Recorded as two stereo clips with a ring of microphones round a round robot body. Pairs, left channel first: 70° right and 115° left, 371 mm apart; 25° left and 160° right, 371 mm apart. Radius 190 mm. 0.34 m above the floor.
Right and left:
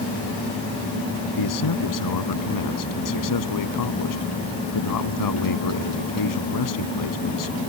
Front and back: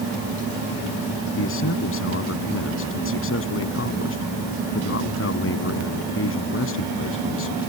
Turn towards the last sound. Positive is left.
turn(degrees=-35)